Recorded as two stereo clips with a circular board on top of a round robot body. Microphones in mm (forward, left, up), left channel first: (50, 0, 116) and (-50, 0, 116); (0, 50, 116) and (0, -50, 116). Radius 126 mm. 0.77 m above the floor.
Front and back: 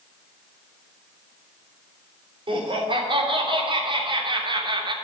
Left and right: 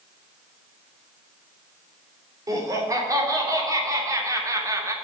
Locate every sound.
2.5 s laughter: 145° right, 3.5 m; by 5.0 s 150° right, 2 m